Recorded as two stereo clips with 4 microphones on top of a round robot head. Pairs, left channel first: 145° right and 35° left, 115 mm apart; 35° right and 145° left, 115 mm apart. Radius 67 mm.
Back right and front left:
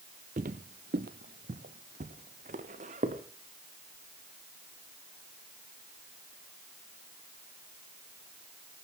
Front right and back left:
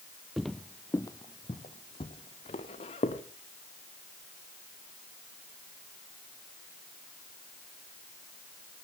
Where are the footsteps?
55° left, 0.7 m; by 3.2 s 5° left, 2 m.